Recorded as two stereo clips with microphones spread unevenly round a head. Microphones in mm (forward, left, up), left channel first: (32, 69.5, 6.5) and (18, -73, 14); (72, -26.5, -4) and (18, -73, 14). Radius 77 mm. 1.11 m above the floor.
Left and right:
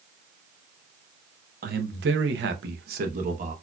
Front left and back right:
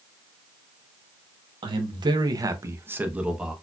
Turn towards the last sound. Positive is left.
turn(degrees=-55)